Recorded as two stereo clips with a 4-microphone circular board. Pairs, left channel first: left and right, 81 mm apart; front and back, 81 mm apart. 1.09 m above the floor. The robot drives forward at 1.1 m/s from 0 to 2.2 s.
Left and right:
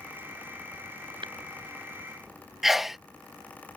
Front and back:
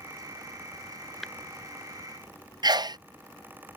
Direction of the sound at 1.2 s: 90° right.